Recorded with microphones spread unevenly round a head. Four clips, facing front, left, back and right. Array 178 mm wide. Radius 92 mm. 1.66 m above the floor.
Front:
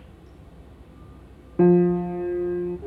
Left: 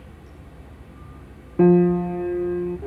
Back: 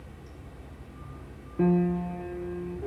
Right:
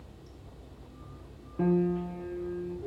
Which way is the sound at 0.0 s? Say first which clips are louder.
Left 6 dB, back 1 dB; 100° left.